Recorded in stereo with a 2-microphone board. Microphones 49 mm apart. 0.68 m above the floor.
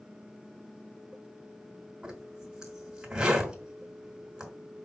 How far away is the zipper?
About 2 m.